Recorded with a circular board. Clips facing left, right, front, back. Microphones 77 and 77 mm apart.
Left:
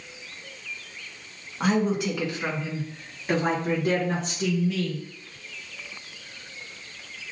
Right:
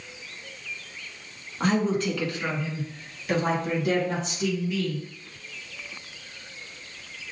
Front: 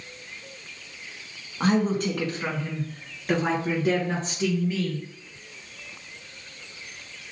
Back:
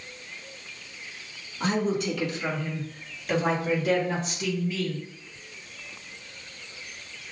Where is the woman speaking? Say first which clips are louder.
Even, front 3 dB; 5° left, 1.5 m; by 5.0 s 60° left, 2.5 m.